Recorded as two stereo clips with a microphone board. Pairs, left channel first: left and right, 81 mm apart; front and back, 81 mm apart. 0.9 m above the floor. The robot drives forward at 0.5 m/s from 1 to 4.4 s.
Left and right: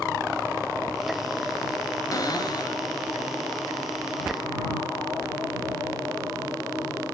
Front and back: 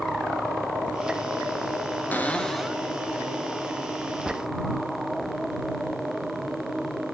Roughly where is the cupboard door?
Ahead left.